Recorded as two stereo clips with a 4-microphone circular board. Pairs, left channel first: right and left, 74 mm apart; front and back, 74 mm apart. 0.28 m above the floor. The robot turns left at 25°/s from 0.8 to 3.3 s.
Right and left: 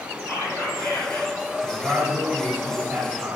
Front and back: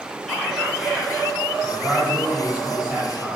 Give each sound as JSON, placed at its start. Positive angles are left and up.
{"t": 0.3, "sound": "whispering", "azimuth_deg": -90, "distance_m": 1.9}
{"t": 1.6, "sound": "a man speaking", "azimuth_deg": 150, "distance_m": 1.5}